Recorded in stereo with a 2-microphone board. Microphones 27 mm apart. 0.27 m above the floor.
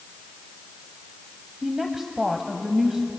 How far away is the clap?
I don't hear a clap.